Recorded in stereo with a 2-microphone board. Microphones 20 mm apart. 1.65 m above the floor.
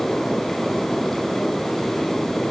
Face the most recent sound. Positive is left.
No sound to turn to.